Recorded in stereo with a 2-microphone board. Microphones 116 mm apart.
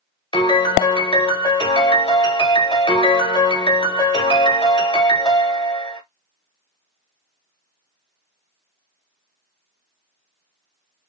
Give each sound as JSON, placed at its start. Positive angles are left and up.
{"t": 0.3, "sound": "a piano", "side_deg": 45, "distance_m": 1.3}